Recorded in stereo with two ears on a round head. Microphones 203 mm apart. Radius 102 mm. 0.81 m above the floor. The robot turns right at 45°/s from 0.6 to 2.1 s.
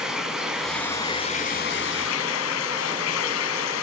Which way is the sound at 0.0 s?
5° right.